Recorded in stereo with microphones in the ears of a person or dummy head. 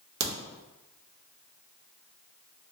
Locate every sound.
0.2 s a crack: 55° right (ahead or behind), 0.8 m